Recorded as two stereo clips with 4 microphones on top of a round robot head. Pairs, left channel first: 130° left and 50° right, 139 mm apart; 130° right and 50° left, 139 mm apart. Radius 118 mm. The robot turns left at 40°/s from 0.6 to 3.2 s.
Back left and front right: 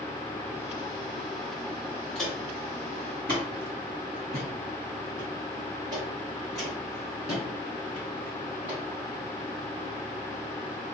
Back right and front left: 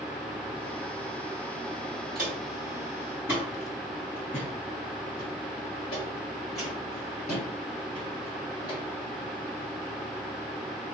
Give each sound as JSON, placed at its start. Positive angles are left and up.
{"t": 2.1, "sound": "footsteps", "azimuth_deg": 45, "distance_m": 1.5}